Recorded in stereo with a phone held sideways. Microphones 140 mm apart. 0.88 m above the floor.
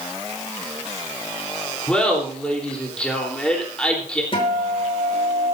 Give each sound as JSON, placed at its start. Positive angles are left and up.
{"t": 1.9, "sound": "laughter", "side_deg": 10, "distance_m": 3.5}
{"t": 4.3, "sound": "a guitar", "side_deg": 45, "distance_m": 5.0}